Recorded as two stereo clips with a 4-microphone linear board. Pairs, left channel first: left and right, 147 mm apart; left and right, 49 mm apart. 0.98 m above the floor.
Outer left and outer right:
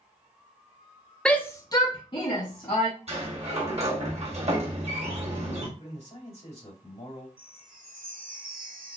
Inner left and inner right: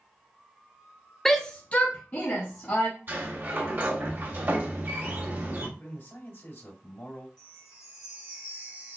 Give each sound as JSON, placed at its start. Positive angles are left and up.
{"t": 1.2, "sound": "a shout", "side_deg": 5, "distance_m": 0.6}
{"t": 3.1, "sound": "a sliding door", "side_deg": -45, "distance_m": 1.0}
{"t": 5.8, "sound": "a man speaking", "side_deg": 45, "distance_m": 2.5}
{"t": 7.4, "sound": "a chime", "side_deg": -70, "distance_m": 1.1}